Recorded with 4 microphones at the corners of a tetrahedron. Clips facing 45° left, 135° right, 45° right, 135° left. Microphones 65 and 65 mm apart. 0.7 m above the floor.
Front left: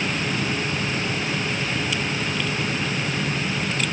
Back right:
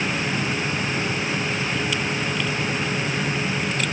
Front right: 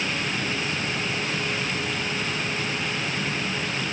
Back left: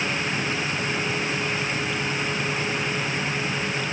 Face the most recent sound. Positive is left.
No sound to turn to.